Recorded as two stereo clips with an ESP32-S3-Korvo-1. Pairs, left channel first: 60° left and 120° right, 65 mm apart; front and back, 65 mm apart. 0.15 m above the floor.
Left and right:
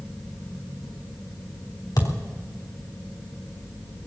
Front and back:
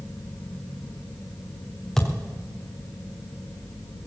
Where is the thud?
85° left, 3 m.